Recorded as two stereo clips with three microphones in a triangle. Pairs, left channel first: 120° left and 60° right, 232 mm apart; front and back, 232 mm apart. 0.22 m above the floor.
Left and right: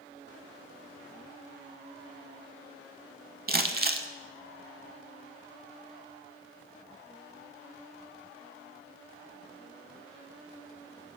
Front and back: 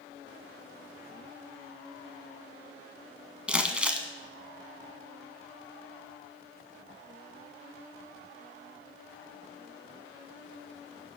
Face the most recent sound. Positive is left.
turn(degrees=-95)